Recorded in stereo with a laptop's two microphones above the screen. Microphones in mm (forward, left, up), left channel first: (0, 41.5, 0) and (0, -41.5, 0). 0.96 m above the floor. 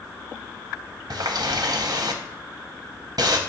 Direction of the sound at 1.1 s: 55° right (ahead or behind).